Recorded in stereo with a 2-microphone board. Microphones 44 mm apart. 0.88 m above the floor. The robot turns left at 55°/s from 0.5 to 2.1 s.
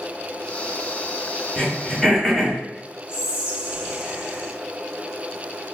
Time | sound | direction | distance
1.6 | throat clearing | 25° left (ahead or behind) | 1.6 m
3.1 | whispering | 20° right (ahead or behind) | 1.3 m